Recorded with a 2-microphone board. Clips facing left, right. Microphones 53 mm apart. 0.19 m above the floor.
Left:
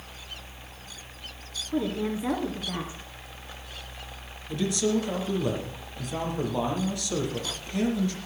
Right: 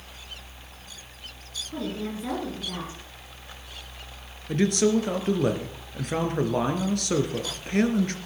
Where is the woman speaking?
15° left (ahead or behind), 2 m.